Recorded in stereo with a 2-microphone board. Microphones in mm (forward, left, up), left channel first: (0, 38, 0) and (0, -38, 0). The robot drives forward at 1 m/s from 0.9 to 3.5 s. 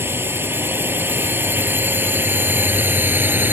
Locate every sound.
0.0 s a drone: 30° right (ahead or behind); by 3.5 s 25° right (ahead or behind)